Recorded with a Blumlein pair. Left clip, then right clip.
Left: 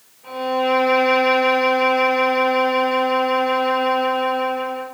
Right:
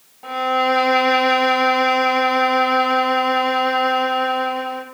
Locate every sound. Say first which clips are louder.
0.2 s a violin: right 2 dB; 45° right, 2.5 m